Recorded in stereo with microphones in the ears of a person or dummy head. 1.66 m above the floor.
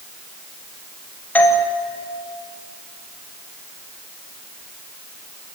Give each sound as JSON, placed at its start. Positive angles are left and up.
{"t": 1.4, "sound": "a doorbell", "side_deg": 10, "distance_m": 1.8}